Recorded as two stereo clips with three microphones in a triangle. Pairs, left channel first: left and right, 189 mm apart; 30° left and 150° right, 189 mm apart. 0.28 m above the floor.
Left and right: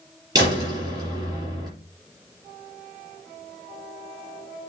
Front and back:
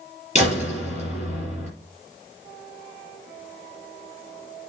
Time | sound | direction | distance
0.3 | a door slam | 20° right | 4.5 m